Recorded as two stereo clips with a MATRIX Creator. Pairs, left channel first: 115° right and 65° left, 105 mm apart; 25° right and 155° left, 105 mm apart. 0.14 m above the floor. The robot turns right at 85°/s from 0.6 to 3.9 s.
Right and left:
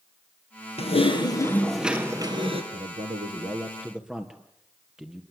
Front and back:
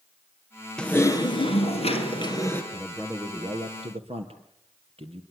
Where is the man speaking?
50° left, 3.5 m; by 5.2 s 150° left, 3.5 m.